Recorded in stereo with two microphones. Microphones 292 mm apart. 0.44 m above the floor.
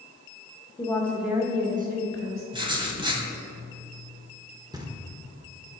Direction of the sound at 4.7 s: 15° right (ahead or behind).